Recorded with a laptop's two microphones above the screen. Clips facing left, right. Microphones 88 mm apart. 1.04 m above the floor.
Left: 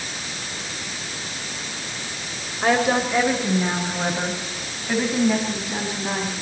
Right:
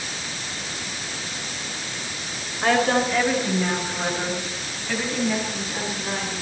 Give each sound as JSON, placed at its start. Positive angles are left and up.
{"t": 2.6, "sound": "a woman speaking", "side_deg": 10, "distance_m": 4.0}